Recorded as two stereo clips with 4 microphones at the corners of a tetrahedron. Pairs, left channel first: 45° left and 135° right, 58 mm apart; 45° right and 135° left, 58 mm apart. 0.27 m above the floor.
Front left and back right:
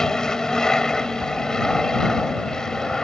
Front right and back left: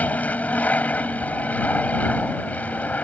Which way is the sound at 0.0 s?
25° right.